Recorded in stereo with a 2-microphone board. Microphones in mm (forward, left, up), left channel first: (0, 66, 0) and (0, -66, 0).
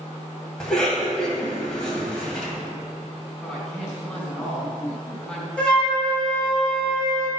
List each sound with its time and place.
0.6 s a cough: 5° left (ahead or behind), 1.8 m
3.4 s a woman speaking: 5° left (ahead or behind), 3 m
5.6 s a flute: 5° left (ahead or behind), 2 m